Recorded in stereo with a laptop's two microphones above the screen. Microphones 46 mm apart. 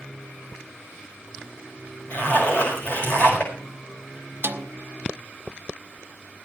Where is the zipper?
45° left (ahead or behind), 5.5 m.